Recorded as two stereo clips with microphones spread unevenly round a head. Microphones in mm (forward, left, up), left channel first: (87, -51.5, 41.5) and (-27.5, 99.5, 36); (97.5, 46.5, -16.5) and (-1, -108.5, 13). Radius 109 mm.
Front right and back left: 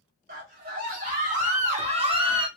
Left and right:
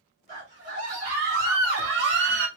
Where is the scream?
175° left, 2 m; by 2.5 s 165° right, 1.0 m.